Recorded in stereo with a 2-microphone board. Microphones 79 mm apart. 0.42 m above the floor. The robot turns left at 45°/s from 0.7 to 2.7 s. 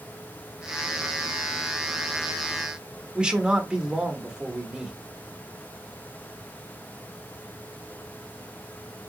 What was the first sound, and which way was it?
A man speaking, 10° right (ahead or behind).